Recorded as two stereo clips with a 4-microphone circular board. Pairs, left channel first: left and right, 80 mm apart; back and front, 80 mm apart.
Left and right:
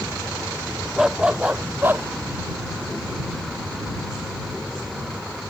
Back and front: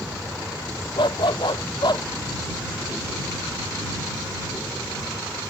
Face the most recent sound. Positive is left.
turn(degrees=-150)